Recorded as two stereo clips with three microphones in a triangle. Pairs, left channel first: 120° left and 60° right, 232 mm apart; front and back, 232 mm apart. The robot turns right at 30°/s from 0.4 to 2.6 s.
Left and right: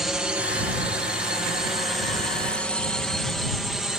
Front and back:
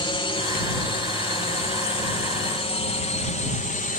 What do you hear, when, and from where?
0.0 s a drone: 25° left